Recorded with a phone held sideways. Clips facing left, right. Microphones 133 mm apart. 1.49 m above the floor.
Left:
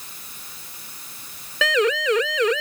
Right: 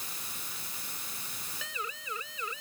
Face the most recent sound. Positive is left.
turn(degrees=80)